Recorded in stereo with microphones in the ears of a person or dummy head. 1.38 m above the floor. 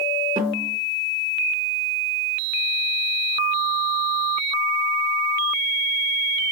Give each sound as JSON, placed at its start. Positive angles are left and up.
{"t": 0.4, "sound": "a snare drum", "side_deg": -40, "distance_m": 1.5}